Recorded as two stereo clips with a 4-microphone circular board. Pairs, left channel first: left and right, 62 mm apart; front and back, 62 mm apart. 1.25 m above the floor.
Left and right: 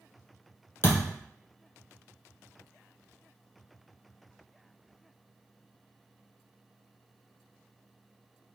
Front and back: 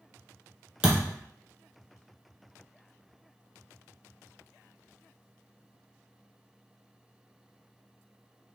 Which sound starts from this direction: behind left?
A thud, at 0.8 s.